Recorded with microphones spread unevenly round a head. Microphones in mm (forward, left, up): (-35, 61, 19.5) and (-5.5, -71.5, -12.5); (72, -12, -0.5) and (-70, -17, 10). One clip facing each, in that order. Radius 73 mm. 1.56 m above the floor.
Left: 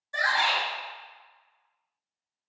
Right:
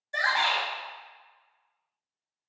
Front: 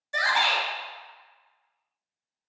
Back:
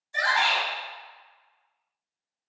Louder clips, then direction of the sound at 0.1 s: Left 1 dB, even; 10° right.